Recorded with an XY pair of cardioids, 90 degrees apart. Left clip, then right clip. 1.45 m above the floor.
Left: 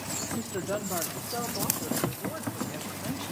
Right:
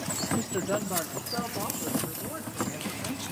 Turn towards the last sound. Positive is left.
turn(degrees=10)